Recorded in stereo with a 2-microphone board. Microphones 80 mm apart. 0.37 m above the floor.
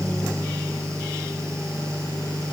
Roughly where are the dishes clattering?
No dishes clattering in this recording.